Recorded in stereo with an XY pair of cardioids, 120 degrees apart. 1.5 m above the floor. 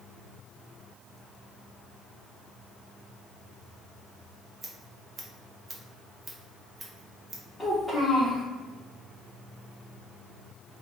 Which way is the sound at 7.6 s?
10° left.